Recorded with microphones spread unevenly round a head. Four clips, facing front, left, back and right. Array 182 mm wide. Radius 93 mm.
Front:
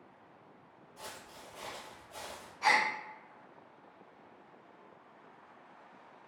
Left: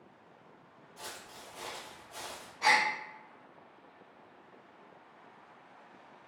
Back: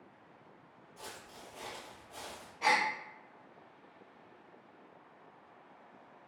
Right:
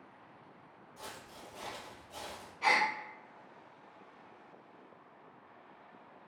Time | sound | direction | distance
1.0 | footsteps | straight ahead | 1.4 m
2.6 | a gasp | 155° left | 0.6 m